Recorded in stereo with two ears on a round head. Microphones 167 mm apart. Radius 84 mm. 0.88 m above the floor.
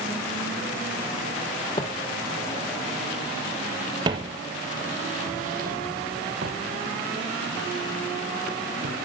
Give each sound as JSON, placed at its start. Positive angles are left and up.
{"t": 1.8, "sound": "footsteps", "side_deg": 25, "distance_m": 1.6}